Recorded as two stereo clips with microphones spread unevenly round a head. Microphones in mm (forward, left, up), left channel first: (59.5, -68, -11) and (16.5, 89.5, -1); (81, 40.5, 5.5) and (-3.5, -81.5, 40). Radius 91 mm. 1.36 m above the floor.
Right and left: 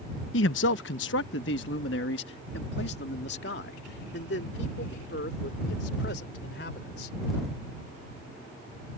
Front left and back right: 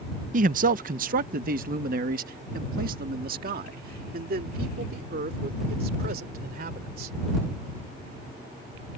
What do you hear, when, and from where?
0.3 s a man speaking: 100° right; by 7.2 s 110° right